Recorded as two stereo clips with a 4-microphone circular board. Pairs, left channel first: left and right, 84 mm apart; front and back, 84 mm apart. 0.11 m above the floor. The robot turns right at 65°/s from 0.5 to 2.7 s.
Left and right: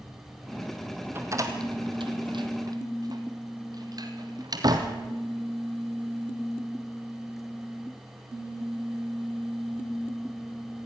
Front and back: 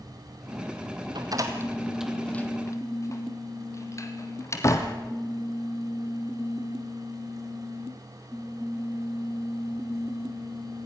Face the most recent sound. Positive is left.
turn(degrees=-50)